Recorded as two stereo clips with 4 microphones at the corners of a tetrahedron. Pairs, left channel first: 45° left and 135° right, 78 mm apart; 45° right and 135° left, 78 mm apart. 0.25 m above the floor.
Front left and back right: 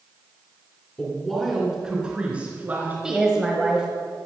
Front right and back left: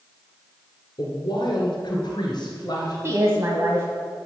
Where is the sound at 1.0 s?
35° right, 2 m; by 2.9 s 80° right, 3 m.